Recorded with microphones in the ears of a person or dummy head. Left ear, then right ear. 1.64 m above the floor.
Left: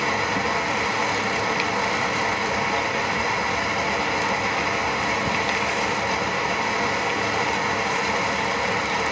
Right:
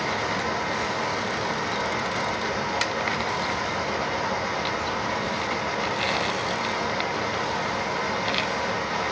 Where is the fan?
30° left (ahead or behind), 1.0 m.